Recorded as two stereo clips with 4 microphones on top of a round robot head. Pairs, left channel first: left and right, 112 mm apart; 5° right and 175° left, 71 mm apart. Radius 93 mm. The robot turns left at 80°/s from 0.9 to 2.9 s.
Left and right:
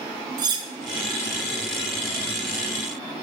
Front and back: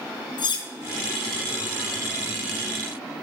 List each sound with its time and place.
0.4 s cutlery clinking: 35° right, 0.9 m